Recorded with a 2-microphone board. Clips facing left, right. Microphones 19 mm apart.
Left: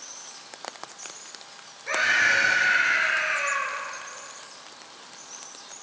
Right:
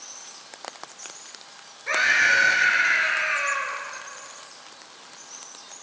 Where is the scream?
20° right (ahead or behind), 1.8 m.